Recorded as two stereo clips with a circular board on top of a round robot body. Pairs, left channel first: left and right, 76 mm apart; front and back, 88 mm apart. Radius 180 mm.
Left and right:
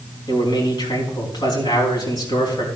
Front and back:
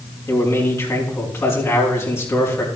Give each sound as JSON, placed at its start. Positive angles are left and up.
{"t": 0.3, "sound": "a man speaking", "azimuth_deg": 60, "distance_m": 5.0}